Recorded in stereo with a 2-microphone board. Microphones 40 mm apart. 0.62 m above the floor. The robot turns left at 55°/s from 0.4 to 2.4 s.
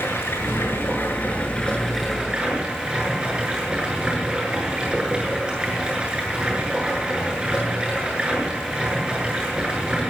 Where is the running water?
90° left, 7.5 m; by 10.1 s 20° right, 7.5 m.